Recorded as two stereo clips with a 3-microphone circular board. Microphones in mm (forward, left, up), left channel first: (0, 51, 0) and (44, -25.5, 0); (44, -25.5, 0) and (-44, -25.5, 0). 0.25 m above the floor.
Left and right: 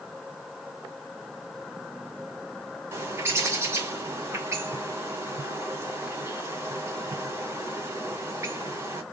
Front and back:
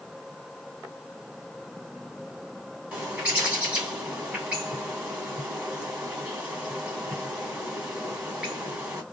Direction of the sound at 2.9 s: 110° right.